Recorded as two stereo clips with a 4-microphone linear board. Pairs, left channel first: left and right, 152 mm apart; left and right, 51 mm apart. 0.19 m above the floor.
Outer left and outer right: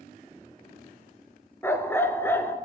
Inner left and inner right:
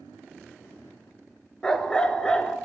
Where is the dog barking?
15° left (ahead or behind), 0.5 m.